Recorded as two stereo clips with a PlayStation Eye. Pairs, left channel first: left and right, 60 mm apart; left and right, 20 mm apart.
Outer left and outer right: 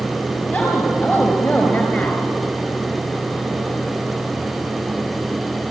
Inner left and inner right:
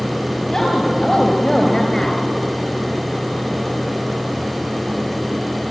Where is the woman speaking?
35° left (ahead or behind), 4 m; by 2.2 s 30° left (ahead or behind), 3 m.